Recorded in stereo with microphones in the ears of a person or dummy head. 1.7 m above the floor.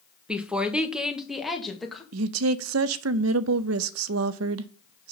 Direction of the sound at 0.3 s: 10° right (ahead or behind).